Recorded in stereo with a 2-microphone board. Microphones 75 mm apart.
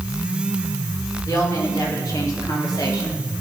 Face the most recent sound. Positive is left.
turn(degrees=60)  # may be behind; listen again after turning